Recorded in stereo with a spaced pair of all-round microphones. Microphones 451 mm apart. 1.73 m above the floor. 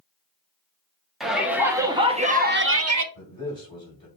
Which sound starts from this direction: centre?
A shout, at 1.2 s.